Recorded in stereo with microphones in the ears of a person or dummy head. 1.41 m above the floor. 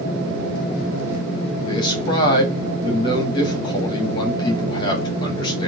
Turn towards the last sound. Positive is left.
turn(degrees=25)  # may be behind; listen again after turning